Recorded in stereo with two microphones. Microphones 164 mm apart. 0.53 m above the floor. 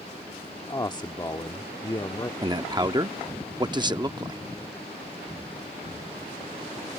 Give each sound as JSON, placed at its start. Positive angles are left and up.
{"t": 0.7, "sound": "a man speaking", "side_deg": 25}
{"t": 2.4, "sound": "a man speaking", "side_deg": -25}